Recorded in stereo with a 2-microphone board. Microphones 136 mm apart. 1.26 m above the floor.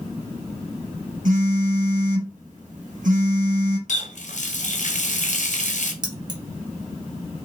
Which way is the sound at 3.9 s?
65° left (ahead or behind).